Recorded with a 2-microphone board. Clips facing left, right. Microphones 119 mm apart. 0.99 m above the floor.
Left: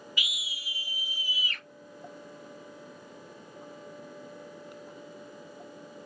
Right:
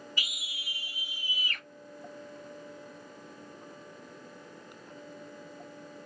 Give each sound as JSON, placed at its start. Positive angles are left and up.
{"t": 0.2, "sound": "a scream", "side_deg": -40, "distance_m": 0.8}